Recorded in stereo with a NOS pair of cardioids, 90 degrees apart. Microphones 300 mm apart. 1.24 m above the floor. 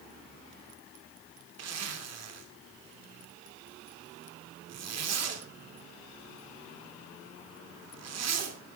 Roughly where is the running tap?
I don't hear a running tap.